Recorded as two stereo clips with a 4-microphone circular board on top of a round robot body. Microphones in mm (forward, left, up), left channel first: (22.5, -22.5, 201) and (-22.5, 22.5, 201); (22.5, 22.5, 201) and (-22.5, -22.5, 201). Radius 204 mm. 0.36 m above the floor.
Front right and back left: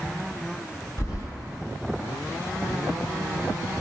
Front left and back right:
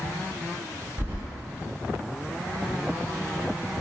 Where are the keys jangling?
75° right, 1.2 m.